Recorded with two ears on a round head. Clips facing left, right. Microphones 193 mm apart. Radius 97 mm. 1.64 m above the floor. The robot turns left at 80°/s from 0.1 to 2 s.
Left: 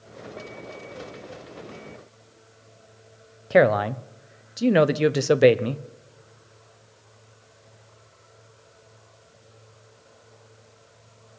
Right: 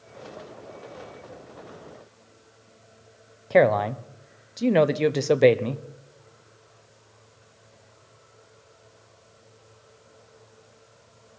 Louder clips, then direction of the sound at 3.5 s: Left 1 dB; 10° left (ahead or behind).